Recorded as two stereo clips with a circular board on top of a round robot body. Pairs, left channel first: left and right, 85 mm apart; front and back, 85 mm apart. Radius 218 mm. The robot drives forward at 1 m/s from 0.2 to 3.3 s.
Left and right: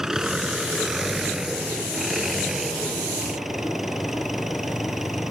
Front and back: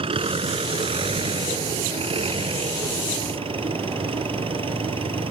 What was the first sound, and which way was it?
An engine running, 175° right.